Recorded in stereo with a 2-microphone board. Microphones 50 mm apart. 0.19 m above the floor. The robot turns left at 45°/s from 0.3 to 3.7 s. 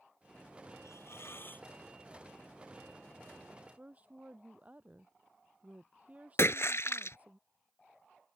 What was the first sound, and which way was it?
A hiss, 75° left.